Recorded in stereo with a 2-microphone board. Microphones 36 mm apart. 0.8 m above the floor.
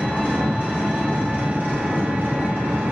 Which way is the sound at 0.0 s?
65° right (ahead or behind).